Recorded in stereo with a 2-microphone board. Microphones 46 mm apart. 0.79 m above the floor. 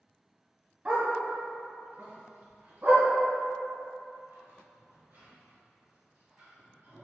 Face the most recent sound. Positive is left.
turn(degrees=-85)